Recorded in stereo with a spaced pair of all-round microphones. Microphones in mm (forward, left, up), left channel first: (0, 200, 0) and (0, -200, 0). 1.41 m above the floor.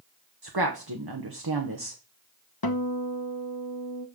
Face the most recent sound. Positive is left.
turn(degrees=65)  # may be behind; listen again after turning